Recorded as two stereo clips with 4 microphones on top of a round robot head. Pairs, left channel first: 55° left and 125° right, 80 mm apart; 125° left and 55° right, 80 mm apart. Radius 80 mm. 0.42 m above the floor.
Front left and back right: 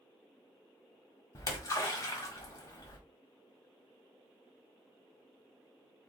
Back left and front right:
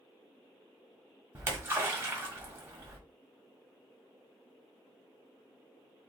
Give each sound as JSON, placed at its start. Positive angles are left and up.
{"t": 1.4, "sound": "a splash", "azimuth_deg": 5, "distance_m": 1.5}